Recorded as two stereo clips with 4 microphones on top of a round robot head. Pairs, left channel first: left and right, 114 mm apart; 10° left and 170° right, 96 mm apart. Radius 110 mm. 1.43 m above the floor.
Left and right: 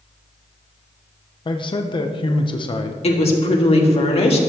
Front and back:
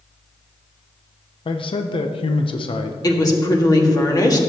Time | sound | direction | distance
1.4 | a man speaking | 40° left | 0.7 m
3.0 | a woman speaking | 60° left | 1.9 m